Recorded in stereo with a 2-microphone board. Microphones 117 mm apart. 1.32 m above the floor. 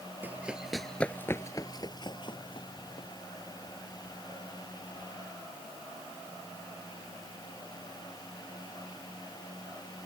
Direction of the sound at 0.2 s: 15° right (ahead or behind).